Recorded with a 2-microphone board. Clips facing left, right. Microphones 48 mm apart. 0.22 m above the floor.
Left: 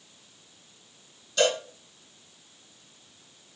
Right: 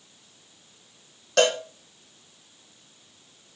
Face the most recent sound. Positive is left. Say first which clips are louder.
# right 3 dB
turn(degrees=-75)  # may be behind; listen again after turning